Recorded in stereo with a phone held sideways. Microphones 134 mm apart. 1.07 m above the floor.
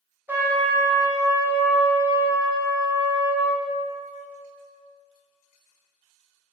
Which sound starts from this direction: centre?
A trumpet, at 0.3 s.